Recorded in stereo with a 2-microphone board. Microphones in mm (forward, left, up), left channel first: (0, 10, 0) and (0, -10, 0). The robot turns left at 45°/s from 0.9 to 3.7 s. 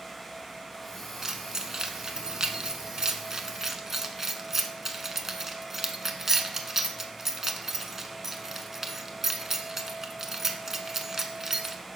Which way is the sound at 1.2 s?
25° right (ahead or behind).